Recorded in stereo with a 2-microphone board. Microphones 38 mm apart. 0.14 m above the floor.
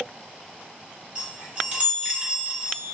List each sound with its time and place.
1.1 s a chime: 40° right (ahead or behind), 1.9 m